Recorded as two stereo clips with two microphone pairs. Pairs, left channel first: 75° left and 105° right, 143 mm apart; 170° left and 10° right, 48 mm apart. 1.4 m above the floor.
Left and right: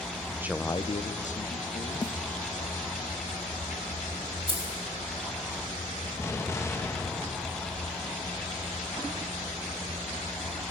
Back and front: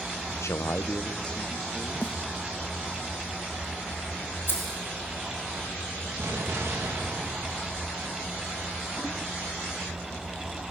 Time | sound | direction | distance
0.4 | a man speaking | straight behind | 0.5 m
2.0 | a snare drum | 130° left | 1.2 m
4.5 | keys jangling | 150° right | 5 m
6.2 | an explosion | 5° left | 1.9 m